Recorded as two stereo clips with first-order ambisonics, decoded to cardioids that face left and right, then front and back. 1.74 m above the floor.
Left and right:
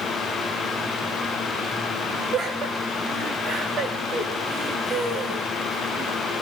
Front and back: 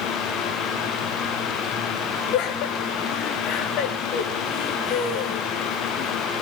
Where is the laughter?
35° right, 4 m.